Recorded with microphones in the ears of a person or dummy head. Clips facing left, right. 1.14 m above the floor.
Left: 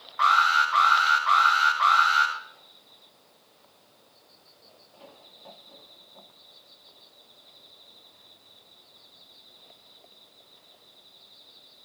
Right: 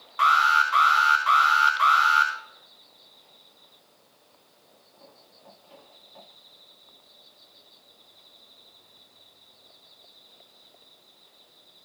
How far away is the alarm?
About 5 m.